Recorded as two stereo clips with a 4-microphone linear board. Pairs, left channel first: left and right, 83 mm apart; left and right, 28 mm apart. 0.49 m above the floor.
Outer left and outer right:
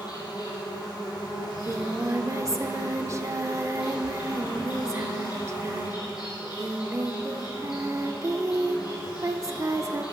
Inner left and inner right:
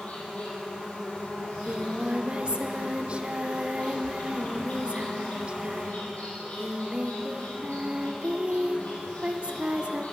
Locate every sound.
0.0 s an insect: 55° left (ahead or behind), 3.5 m
1.4 s singing: 35° right (ahead or behind), 0.6 m